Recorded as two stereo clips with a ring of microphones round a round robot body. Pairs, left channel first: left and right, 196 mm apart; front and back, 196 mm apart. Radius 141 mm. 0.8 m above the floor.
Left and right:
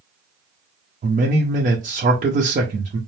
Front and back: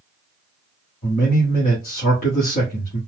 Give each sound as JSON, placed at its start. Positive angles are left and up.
{"t": 1.0, "sound": "a man speaking", "azimuth_deg": -45, "distance_m": 0.8}